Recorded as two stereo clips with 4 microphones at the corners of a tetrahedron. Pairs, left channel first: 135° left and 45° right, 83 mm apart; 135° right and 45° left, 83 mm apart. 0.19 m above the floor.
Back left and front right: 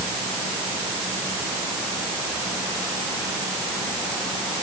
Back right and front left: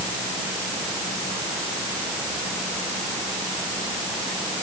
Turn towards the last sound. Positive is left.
No sound to turn to.